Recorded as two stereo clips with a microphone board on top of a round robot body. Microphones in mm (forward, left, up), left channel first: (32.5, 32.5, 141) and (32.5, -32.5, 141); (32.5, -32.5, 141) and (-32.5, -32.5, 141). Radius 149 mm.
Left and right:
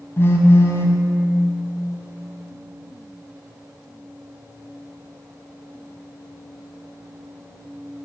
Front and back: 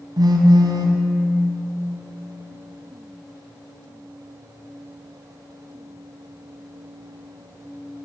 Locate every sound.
0.2 s a phone buzzing: 150° left, 0.6 m